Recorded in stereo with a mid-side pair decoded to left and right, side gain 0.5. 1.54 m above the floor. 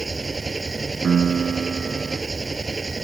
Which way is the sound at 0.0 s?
25° right.